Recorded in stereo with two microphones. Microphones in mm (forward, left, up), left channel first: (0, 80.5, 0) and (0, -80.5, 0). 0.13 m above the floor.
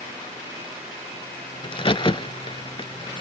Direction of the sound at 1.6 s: 35° left (ahead or behind).